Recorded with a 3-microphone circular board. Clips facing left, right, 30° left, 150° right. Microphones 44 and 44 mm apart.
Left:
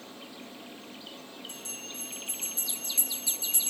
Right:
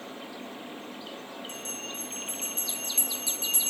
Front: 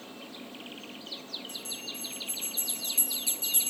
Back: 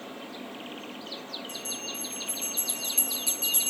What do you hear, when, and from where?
1.5 s a bell: 120° right, 6 m